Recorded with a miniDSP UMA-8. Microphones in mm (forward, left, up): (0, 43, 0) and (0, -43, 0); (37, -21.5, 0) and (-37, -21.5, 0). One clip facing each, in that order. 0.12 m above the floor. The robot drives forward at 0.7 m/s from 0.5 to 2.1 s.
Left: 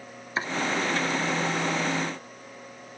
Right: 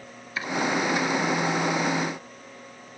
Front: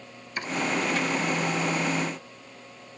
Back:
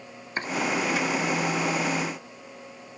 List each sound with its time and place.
0.4 s chopping: 135° left, 1.1 m